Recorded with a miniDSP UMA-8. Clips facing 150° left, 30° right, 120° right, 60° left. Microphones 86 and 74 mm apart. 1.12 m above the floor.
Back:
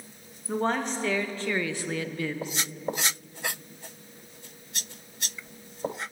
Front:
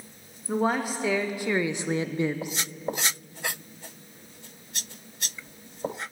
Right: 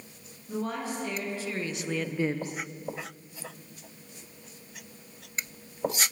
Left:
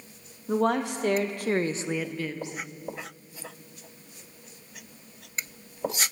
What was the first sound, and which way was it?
A woman speaking, 55° left.